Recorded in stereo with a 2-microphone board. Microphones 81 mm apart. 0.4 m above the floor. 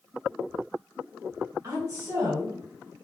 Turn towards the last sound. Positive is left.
turn(degrees=-35)  # may be behind; listen again after turning